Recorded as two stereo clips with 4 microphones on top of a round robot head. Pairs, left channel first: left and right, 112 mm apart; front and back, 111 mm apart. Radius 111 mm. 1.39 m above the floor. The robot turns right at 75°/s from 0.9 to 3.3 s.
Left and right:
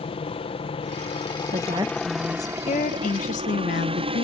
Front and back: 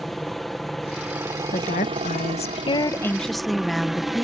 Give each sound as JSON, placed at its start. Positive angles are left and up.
{"t": 0.0, "sound": "a helicopter", "azimuth_deg": 85}
{"t": 1.5, "sound": "a woman speaking", "azimuth_deg": -45}